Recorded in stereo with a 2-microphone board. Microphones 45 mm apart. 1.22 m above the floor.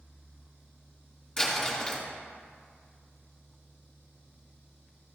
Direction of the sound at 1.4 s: 20° left (ahead or behind).